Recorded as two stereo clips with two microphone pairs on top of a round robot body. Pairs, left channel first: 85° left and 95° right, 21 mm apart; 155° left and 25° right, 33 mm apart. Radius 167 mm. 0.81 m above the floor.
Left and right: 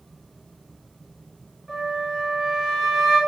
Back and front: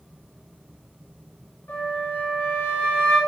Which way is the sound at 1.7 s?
Straight behind.